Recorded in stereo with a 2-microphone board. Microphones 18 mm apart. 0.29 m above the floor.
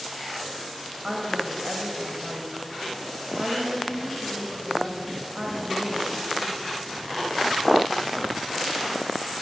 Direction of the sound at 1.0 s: 35° right (ahead or behind).